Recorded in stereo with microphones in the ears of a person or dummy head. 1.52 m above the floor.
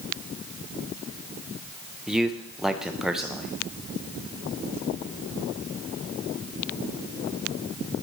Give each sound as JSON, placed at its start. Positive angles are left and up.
{"t": 2.1, "sound": "a man speaking", "side_deg": 0, "distance_m": 0.7}